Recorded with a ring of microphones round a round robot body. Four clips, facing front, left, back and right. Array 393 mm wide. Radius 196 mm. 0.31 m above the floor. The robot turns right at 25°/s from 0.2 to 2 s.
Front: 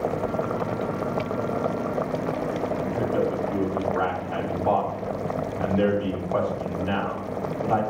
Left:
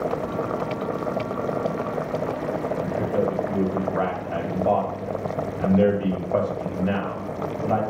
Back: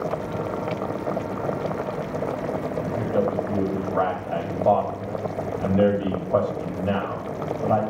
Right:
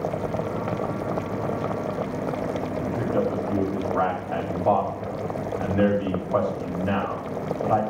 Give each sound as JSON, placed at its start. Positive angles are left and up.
{"t": 2.8, "sound": "a man speaking", "azimuth_deg": 150, "distance_m": 2.0}